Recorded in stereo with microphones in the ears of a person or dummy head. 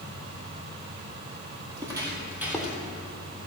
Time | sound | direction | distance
1.7 | footsteps | 25° right (ahead or behind) | 2.5 m